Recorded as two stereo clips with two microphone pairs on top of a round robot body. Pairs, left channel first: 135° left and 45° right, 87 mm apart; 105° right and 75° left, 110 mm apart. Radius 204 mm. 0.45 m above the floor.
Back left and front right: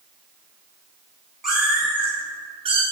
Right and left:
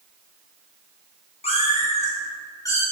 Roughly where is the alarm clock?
No alarm clock in this recording.